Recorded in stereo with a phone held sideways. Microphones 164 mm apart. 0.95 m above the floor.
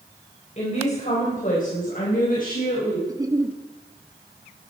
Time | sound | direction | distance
0.6 | a woman speaking | 40° left (ahead or behind) | 4 m
3.1 | a giggle | 20° right (ahead or behind) | 1.2 m